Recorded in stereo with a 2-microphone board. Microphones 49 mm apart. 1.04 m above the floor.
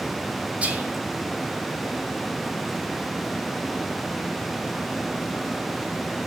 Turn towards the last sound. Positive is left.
turn(degrees=-30)  # may be behind; listen again after turning